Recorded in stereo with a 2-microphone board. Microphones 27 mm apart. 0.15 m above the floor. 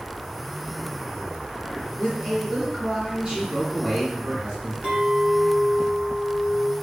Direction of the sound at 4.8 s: 40° right (ahead or behind).